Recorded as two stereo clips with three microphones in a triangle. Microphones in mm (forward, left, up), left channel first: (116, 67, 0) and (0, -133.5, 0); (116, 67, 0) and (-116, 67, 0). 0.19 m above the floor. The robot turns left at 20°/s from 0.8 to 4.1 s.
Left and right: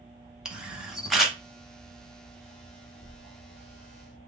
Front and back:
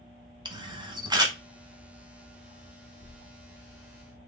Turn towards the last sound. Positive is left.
turn(degrees=95)